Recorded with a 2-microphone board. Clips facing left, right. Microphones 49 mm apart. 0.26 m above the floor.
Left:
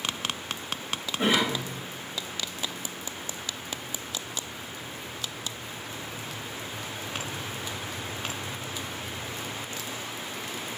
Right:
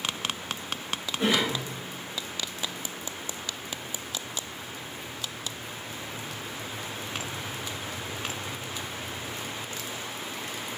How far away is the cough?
About 1.0 m.